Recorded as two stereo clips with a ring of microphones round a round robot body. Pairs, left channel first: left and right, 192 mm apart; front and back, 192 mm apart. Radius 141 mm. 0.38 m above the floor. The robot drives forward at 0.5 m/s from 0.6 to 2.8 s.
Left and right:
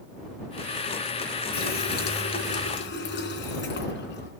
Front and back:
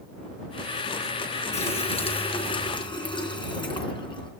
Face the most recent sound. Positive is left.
turn(degrees=65)